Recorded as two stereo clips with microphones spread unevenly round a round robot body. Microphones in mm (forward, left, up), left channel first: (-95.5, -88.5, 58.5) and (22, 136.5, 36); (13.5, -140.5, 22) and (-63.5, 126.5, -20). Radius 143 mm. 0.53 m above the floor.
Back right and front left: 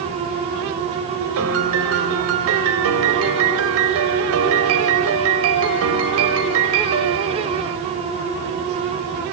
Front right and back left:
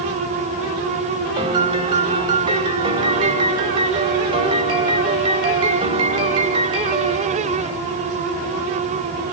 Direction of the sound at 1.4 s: 35° left.